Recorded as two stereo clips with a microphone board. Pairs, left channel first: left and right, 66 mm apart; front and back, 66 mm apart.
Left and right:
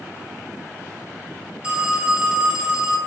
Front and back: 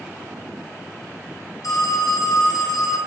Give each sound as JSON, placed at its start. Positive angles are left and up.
{"t": 1.6, "sound": "a phone ringing", "azimuth_deg": -20, "distance_m": 1.7}